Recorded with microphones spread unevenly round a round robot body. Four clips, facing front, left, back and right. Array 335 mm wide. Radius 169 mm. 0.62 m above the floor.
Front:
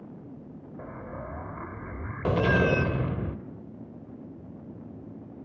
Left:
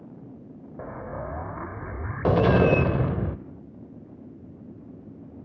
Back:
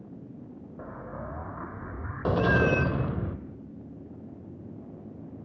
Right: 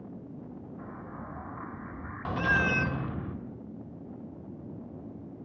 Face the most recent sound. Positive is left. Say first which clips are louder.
# left 8 dB, even
turn(degrees=-80)